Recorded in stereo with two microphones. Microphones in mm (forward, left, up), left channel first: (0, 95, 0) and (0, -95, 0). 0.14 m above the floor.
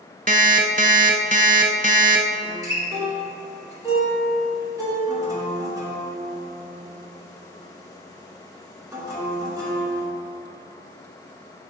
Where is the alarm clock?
45° right (ahead or behind), 0.5 m.